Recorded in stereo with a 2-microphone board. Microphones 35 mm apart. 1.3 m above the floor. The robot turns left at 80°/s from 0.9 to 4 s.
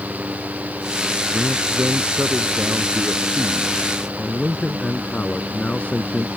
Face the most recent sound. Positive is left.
turn(degrees=140)